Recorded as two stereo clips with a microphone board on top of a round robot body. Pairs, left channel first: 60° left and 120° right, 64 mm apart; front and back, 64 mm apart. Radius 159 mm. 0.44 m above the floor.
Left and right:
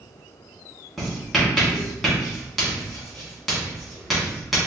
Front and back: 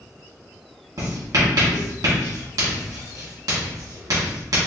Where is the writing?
150° left, 1.5 m.